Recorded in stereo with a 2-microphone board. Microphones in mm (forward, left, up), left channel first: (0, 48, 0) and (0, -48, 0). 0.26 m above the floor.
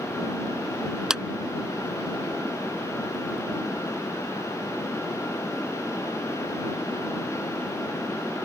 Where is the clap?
5° right (ahead or behind).